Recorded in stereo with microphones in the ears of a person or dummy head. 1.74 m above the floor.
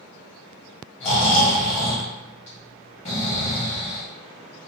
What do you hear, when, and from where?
1.0 s snoring: 30° left (ahead or behind), 1.0 m